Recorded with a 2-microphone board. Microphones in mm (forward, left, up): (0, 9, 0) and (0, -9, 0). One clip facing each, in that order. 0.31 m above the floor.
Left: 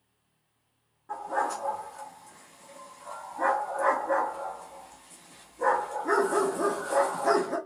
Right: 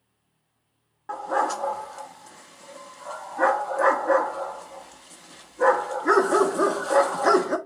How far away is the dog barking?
About 0.7 m.